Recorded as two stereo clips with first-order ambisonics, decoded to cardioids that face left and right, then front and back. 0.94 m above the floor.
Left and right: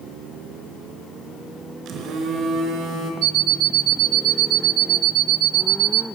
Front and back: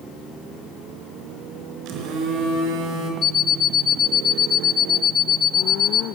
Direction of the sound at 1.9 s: 140° right.